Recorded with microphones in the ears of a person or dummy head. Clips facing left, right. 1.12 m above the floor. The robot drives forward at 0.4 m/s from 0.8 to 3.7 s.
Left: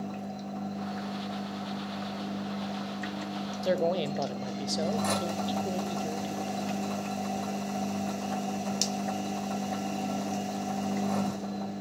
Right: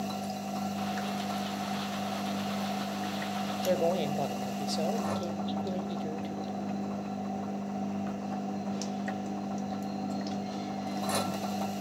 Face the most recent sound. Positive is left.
turn(degrees=10)  # may be behind; listen again after turning